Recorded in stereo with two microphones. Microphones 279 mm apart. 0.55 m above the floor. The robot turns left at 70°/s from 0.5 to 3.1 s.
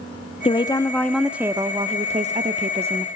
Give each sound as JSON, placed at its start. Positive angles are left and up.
{"t": 0.5, "sound": "a woman speaking", "side_deg": 20, "distance_m": 0.7}